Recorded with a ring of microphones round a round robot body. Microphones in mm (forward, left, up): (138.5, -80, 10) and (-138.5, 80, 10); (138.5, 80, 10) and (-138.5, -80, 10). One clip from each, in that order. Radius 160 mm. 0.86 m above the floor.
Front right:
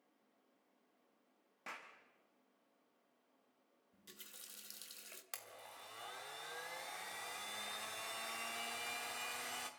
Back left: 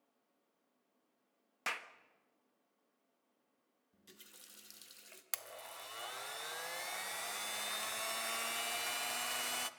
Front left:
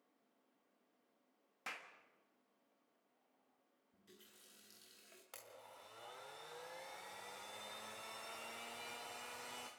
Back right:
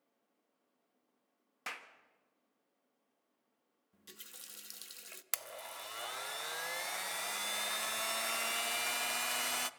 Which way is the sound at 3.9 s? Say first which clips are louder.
Front right 2 dB, back right 12 dB; 110° right.